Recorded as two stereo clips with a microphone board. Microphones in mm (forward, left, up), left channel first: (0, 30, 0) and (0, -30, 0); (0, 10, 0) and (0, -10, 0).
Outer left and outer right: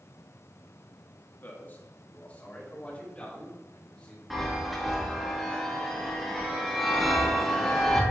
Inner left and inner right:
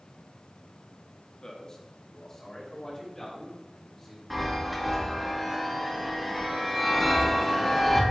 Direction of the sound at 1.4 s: 40° left (ahead or behind).